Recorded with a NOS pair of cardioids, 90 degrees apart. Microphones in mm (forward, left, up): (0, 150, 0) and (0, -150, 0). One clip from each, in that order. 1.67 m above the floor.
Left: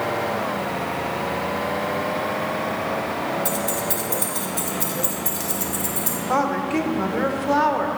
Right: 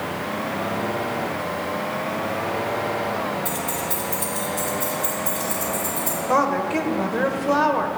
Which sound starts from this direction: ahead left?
Keys jangling, at 3.5 s.